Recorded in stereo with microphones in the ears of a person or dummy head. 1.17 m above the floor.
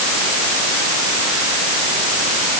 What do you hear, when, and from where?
Only background noise.